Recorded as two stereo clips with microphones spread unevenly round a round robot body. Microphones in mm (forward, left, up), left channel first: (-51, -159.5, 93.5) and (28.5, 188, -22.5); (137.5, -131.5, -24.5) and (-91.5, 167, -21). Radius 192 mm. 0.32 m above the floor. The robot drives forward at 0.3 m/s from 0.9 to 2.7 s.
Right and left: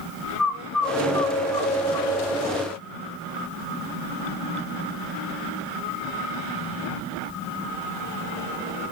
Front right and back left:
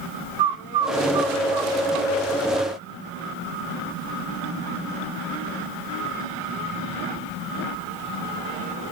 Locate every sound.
0.4 s a bird: 160° left, 0.6 m; by 2.1 s 170° left, 0.9 m